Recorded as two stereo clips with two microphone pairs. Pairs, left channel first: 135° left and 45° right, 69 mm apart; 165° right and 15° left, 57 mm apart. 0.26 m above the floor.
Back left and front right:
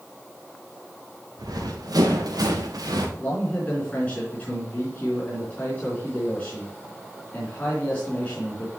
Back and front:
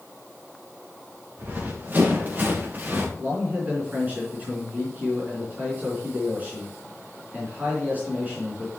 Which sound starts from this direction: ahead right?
Running footsteps, at 1.4 s.